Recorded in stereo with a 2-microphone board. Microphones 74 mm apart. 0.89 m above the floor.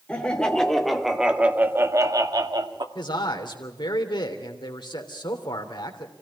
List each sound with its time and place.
0.1 s laughter: 15° left (ahead or behind), 3 m; by 2.9 s 75° right (ahead or behind), 2 m
3.0 s a man speaking: 80° left, 3 m